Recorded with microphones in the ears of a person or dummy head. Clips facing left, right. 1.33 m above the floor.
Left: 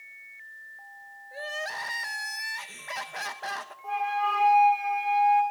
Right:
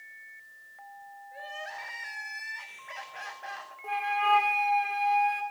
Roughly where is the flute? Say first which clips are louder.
Right 1 dB; right.